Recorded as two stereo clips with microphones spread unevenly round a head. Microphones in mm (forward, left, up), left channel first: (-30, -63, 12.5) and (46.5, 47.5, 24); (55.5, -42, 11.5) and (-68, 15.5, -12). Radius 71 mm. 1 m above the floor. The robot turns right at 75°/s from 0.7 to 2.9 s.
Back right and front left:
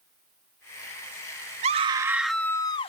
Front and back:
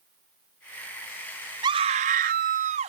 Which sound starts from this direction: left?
A scream, at 1.6 s.